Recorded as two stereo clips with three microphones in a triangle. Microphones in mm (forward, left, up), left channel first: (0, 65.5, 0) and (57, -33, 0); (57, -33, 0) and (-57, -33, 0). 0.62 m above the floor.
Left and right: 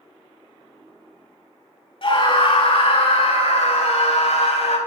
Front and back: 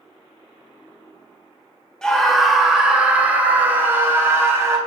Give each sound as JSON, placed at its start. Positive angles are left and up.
{"t": 2.0, "sound": "a scream", "azimuth_deg": 85, "distance_m": 2.0}